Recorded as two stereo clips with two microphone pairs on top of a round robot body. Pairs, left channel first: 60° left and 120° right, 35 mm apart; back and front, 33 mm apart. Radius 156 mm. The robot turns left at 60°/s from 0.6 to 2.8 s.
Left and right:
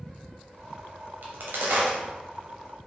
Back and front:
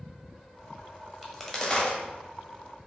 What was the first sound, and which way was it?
A crack, 85° right.